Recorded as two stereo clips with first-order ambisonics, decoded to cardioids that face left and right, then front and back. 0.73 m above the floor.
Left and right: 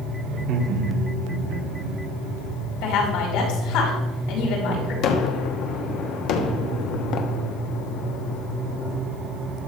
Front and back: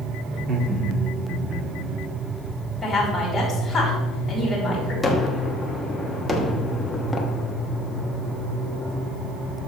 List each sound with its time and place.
0.3 s laughter: 130° right, 2 m; by 1.9 s 110° right, 3 m
2.8 s a woman speaking: 90° left, 4.5 m
5.0 s a gunshot: 85° left, 1.0 m